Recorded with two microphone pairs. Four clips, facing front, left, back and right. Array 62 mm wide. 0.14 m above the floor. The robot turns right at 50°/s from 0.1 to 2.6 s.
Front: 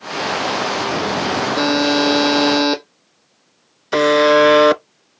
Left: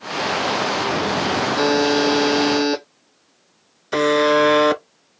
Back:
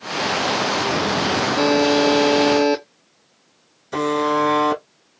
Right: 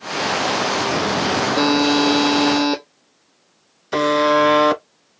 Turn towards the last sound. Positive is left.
turn(degrees=10)